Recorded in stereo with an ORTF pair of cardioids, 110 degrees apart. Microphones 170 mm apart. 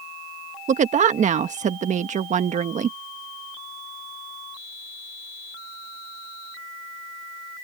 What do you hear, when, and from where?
0.7 s a woman speaking: 45° right